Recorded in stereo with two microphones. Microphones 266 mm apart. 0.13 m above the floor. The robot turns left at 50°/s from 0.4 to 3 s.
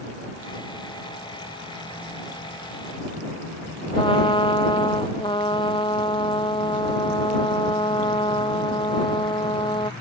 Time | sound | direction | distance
4.0 | a trumpet | 20° left (ahead or behind) | ?